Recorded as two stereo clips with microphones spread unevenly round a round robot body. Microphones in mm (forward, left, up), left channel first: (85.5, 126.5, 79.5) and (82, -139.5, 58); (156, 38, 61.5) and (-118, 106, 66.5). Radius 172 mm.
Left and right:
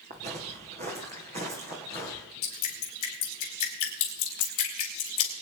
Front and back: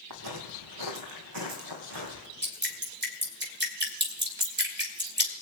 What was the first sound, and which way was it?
Footsteps, 165° right.